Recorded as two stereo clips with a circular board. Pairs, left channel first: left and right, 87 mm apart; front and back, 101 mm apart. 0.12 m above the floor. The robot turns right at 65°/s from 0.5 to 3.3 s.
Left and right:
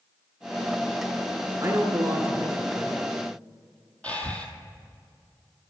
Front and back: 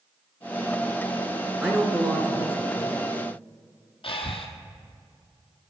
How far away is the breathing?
About 1.0 m.